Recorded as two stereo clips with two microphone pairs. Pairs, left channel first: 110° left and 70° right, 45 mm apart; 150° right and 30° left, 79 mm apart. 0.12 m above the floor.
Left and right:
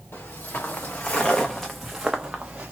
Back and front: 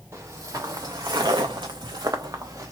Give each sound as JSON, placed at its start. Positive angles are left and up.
{"t": 0.1, "sound": "footsteps", "azimuth_deg": 75, "distance_m": 1.2}